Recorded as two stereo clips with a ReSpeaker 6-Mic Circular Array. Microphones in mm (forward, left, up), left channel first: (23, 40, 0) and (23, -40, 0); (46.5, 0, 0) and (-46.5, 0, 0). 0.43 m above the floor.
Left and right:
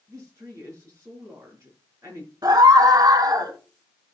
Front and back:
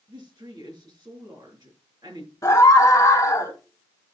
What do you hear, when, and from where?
0.1 s a woman speaking: 140° right, 5.5 m
2.4 s a scream: 55° right, 2 m